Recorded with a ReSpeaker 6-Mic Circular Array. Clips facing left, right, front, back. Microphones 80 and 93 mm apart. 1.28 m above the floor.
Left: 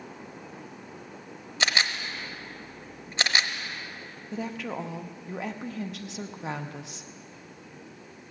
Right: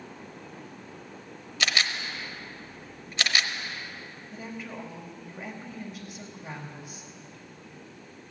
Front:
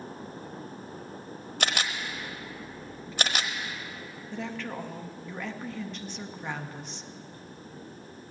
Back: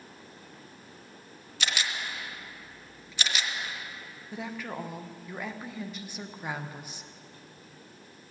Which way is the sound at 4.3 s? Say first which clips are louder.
Left 6 dB, front 1 dB; 100° left.